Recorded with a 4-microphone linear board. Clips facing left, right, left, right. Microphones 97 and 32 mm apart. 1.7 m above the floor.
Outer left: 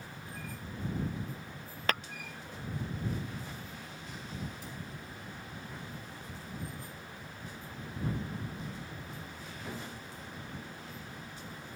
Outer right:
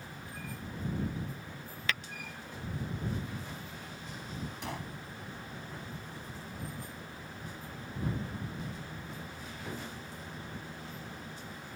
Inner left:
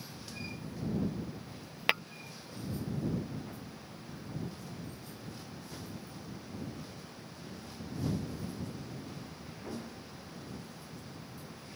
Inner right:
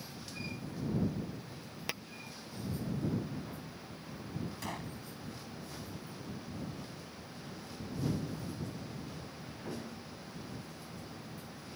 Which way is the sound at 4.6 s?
75° right (ahead or behind).